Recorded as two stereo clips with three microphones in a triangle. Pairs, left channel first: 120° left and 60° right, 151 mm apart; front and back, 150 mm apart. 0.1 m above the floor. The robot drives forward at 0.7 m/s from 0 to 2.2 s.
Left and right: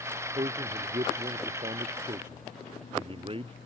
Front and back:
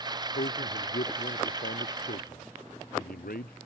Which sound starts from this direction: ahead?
A man speaking, at 0.3 s.